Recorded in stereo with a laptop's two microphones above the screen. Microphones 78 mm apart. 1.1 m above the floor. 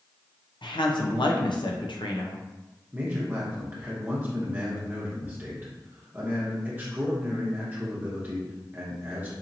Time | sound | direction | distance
0.6 | a woman speaking | 75° left (ahead or behind) | 0.6 m
2.9 | a man speaking | 25° right (ahead or behind) | 1.0 m